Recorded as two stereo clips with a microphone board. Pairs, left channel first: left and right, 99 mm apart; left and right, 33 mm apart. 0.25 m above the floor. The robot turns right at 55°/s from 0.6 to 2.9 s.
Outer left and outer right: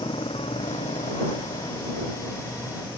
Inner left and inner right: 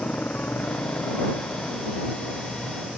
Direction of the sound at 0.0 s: 60° left (ahead or behind).